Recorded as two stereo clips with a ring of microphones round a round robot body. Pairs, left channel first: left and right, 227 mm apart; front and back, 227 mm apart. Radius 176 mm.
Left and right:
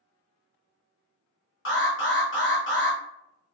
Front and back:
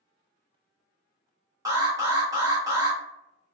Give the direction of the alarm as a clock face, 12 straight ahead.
8 o'clock.